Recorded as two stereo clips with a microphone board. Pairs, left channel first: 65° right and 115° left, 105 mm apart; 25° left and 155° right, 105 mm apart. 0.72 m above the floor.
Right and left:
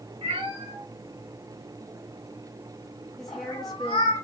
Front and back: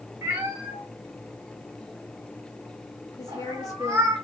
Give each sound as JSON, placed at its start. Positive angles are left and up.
{"t": 0.2, "sound": "a cat meowing", "azimuth_deg": 130, "distance_m": 2.0}
{"t": 3.2, "sound": "a woman speaking", "azimuth_deg": 20, "distance_m": 0.7}